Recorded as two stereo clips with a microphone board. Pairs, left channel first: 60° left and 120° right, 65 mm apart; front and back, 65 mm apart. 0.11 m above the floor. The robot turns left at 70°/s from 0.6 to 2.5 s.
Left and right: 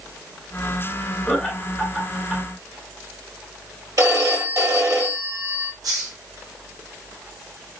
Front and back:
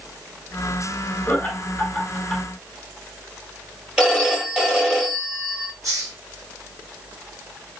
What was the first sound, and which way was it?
Laughter, 10° right.